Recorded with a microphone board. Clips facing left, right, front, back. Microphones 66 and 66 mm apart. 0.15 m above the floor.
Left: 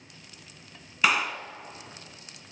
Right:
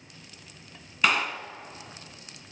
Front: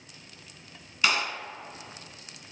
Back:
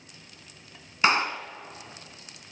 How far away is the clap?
About 1.0 m.